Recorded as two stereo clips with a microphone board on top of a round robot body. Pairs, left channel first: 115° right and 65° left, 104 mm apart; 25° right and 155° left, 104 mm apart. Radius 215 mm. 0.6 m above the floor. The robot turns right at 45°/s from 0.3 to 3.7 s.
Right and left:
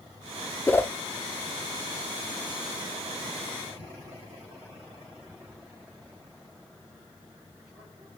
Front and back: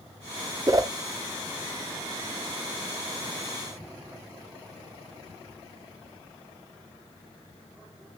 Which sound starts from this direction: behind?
A whoosh, at 0.7 s.